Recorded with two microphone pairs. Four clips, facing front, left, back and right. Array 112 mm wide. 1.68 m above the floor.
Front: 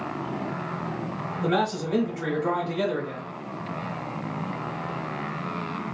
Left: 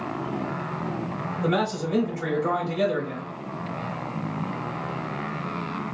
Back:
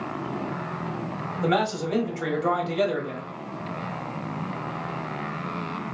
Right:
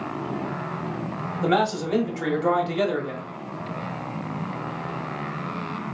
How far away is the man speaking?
About 1.4 m.